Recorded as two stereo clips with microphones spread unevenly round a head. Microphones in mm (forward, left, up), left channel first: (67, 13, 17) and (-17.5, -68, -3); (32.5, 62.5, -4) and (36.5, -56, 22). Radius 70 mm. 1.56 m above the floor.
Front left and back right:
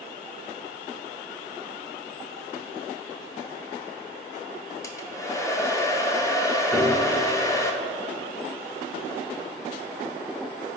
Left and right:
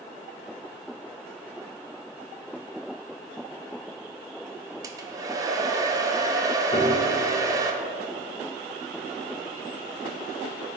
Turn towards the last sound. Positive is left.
turn(degrees=140)